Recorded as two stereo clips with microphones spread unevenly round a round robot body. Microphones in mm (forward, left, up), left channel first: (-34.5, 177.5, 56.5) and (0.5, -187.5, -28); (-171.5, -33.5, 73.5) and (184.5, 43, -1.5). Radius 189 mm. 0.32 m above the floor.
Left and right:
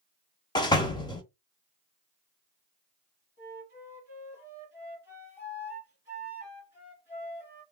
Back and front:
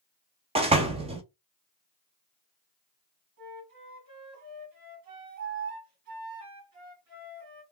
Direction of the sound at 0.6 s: 5° left.